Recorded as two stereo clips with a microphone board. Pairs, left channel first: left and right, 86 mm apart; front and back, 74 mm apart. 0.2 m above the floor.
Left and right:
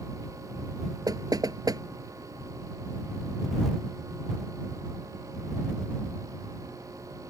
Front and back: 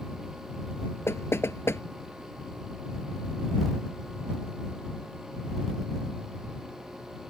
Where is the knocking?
55° right.